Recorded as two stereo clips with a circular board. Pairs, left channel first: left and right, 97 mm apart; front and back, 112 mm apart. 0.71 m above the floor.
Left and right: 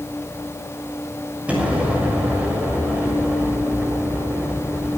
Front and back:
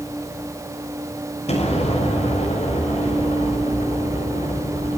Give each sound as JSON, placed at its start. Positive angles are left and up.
{"t": 1.5, "sound": "an explosion", "azimuth_deg": -15, "distance_m": 6.5}